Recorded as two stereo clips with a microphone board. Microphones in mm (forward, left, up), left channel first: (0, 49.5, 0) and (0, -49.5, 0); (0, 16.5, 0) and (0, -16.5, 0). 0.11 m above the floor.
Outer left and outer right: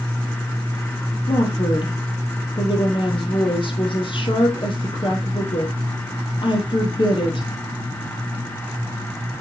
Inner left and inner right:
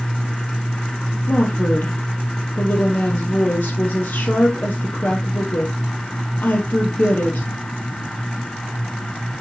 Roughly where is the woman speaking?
Left.